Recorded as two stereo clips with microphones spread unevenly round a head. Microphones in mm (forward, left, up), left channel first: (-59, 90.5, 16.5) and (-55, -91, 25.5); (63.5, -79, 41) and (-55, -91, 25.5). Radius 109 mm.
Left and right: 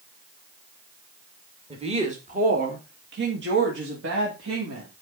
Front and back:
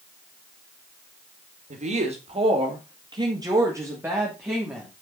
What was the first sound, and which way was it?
A woman speaking, 150° right.